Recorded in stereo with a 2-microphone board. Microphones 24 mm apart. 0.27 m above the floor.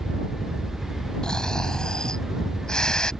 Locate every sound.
0.0 s a helicopter: centre (ahead or behind); by 3.2 s 5° left (ahead or behind)
1.2 s snoring: 35° left (ahead or behind)